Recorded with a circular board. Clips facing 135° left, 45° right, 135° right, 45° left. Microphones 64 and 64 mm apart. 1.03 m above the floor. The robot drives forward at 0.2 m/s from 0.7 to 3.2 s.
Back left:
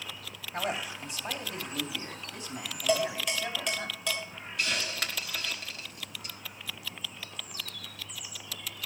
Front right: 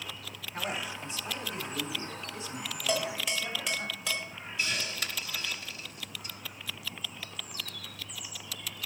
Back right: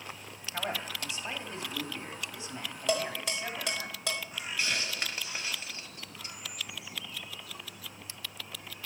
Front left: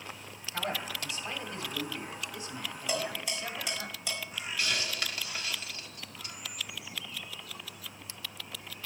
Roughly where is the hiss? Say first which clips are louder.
Back left 2 dB, even; behind.